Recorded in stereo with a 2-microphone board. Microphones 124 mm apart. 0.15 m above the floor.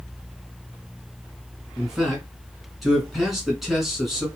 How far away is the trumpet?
I don't hear a trumpet.